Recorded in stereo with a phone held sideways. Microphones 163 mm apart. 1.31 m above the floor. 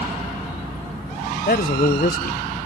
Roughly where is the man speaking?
Left.